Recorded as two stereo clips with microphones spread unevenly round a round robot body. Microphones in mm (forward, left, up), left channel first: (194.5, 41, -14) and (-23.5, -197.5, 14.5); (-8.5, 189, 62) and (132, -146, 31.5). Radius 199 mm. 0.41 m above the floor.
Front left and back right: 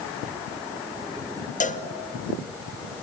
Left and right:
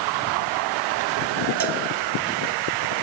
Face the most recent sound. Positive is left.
turn(degrees=-20)